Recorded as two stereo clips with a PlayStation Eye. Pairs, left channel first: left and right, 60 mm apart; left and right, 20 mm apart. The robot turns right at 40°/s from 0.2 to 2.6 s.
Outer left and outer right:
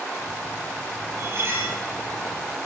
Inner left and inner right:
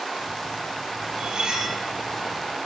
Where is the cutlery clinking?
55° right (ahead or behind), 3.5 m; by 1.8 s 30° right (ahead or behind), 3.5 m.